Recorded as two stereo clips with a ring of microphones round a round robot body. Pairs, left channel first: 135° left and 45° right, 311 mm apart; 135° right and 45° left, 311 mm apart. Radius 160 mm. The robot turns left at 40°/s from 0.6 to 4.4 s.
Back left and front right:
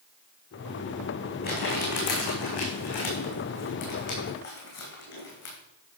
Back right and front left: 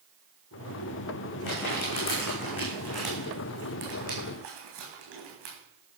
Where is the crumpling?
160° right, 5 m; by 5.5 s 80° left, 5 m.